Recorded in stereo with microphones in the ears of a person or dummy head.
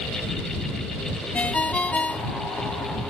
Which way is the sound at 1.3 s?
5° left (ahead or behind).